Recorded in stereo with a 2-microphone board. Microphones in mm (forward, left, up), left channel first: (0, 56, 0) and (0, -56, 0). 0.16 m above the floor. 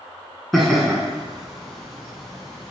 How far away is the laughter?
About 1.9 m.